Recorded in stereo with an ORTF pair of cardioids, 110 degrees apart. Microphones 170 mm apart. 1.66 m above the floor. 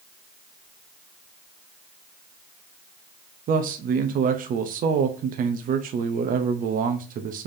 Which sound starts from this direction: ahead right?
A man speaking, at 3.5 s.